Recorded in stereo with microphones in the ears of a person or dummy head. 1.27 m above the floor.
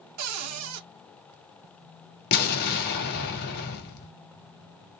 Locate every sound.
0.2 s a cupboard door: 75° right (ahead or behind), 0.5 m
2.3 s an explosion: 50° left (ahead or behind), 1.0 m